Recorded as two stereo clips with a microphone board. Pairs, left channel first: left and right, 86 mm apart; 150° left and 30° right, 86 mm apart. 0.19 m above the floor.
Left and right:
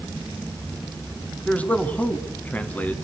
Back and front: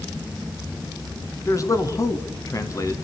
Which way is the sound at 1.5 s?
155° left.